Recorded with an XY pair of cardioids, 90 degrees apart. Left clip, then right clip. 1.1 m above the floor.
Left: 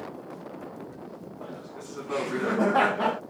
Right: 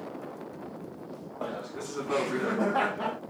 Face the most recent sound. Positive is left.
turn(degrees=55)